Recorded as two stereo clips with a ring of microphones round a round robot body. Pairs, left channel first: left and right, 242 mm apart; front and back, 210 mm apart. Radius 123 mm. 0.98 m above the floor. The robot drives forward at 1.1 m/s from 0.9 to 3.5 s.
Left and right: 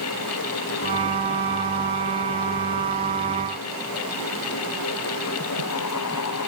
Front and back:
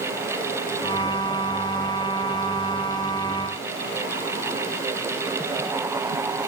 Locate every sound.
Only background noise.